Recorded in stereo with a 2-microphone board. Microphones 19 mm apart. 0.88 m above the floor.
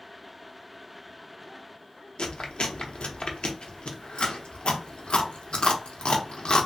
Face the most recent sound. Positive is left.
turn(degrees=60)  # may be behind; listen again after turning